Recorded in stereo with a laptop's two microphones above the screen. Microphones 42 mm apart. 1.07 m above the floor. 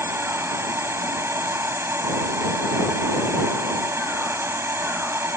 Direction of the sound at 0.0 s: 85° right.